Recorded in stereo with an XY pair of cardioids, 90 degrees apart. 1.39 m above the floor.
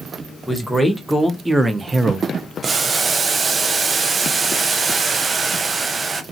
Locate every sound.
0.5 s a man speaking: straight ahead, 1.3 m; by 2.5 s 60° right, 0.7 m
2.6 s boiling: 45° right, 0.6 m